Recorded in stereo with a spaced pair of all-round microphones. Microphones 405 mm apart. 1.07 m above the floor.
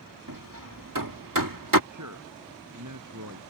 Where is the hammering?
50° right (ahead or behind).